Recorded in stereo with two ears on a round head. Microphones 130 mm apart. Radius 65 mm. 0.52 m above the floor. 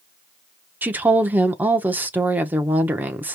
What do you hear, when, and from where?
0.8 s a woman speaking: 15° right (ahead or behind), 0.8 m